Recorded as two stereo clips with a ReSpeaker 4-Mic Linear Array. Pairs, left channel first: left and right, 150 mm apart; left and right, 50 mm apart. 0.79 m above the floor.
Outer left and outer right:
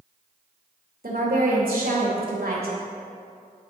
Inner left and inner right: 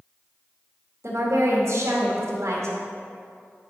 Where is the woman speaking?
75° right (ahead or behind), 2 m.